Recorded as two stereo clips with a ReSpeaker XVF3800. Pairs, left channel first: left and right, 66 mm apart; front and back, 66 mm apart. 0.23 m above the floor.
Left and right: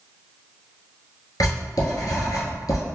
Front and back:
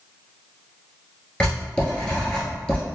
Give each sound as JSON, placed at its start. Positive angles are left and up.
{"t": 1.4, "sound": "writing", "azimuth_deg": 75, "distance_m": 1.2}